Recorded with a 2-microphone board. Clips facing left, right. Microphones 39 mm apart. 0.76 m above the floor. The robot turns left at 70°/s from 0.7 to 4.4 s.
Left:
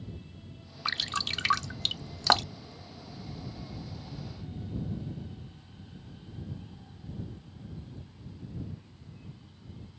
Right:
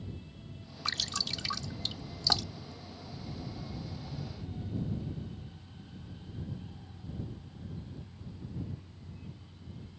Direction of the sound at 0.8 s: 15° left (ahead or behind).